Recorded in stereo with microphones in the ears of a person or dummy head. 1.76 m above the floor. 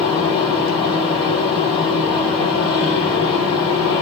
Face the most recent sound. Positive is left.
turn(degrees=30)  # may be behind; listen again after turning